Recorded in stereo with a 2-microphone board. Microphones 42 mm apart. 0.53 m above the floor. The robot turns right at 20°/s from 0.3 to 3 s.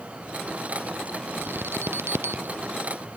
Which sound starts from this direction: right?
An alarm, at 1.4 s.